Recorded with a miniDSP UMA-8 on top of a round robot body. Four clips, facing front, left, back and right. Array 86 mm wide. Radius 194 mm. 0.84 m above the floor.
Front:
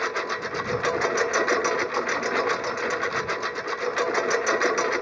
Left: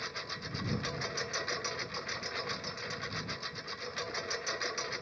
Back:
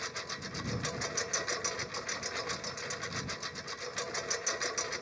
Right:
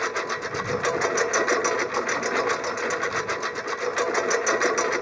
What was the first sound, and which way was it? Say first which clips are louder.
A lawn mower: right 15 dB, front 15 dB; 40° right.